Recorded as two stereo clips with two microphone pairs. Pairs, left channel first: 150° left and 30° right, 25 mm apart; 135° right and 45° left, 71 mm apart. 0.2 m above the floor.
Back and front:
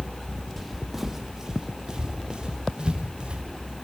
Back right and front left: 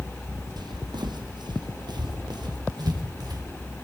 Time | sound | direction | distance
0.6 | footsteps | 60° left | 2.0 m